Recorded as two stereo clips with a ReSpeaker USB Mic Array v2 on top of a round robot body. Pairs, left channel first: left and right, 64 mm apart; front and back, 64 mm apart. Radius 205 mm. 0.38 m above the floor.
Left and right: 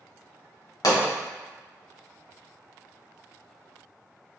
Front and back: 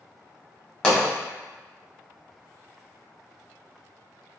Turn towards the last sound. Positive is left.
turn(degrees=80)